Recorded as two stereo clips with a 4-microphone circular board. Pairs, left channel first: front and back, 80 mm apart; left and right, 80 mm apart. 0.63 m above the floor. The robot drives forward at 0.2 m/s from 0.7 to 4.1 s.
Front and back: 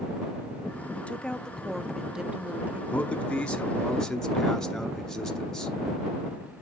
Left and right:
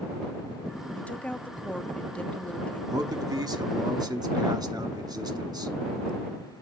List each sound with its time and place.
1.0 s a woman speaking: 45° left, 0.5 m; by 2.8 s 145° left, 0.5 m
2.9 s a man speaking: 65° right, 1.1 m; by 5.7 s 80° right, 1.0 m